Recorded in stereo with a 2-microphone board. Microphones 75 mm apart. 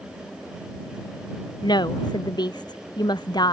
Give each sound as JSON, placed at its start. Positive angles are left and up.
{"t": 1.6, "sound": "a woman speaking", "side_deg": 70}